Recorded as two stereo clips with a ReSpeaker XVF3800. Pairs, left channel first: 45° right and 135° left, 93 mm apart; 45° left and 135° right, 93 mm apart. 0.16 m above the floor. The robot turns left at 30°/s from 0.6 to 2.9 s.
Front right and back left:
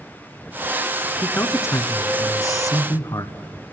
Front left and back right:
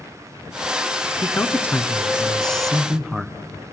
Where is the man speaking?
5° left, 1.6 m; by 3.4 s 50° right, 1.6 m.